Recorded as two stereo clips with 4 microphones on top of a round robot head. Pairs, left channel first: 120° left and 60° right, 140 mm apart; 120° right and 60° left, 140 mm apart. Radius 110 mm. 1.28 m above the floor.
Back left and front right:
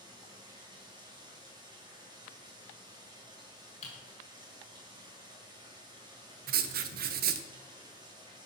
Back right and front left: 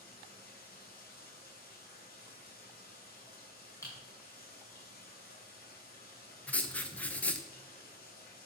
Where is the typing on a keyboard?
170° left, 4 m.